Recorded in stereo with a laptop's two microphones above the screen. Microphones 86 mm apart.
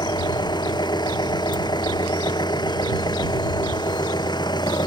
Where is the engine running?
60° left (ahead or behind).